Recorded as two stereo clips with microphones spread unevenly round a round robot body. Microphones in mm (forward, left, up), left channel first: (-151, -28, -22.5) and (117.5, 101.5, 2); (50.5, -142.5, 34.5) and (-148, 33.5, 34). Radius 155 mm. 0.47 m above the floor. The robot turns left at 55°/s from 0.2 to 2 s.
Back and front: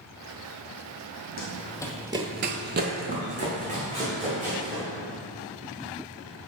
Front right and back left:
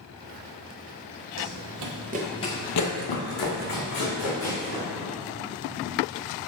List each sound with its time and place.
1.4 s running footsteps: 155° left, 1.4 m; by 4.8 s 45° right, 3.5 m